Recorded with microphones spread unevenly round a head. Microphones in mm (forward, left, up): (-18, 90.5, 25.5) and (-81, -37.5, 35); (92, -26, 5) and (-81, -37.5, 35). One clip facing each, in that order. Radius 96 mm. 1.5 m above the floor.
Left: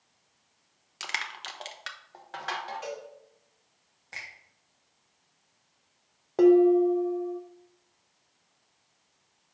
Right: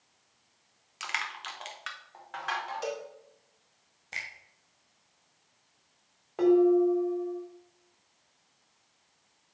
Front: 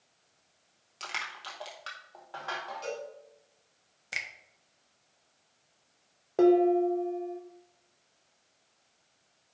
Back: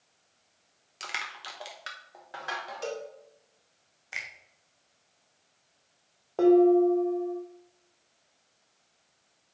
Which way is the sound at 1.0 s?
115° left.